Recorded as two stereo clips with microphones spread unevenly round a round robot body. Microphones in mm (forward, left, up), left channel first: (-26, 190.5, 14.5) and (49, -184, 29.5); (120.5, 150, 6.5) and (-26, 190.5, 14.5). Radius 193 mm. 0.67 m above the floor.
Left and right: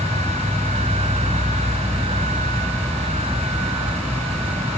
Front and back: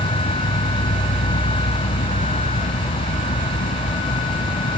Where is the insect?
15° left.